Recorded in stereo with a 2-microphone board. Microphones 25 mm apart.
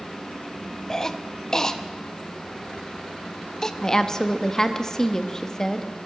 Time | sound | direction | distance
0.9 | a cough | 25° left (ahead or behind) | 0.6 m
3.8 | a woman speaking | 25° left (ahead or behind) | 0.7 m